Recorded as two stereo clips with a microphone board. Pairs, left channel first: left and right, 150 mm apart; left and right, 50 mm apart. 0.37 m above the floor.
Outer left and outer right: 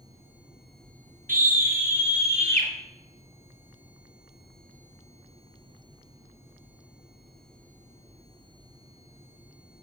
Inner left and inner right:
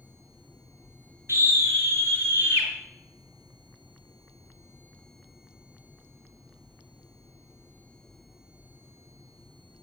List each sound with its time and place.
1.3 s a scream: 60° right (ahead or behind), 5 m; by 2.7 s 40° right (ahead or behind), 5.5 m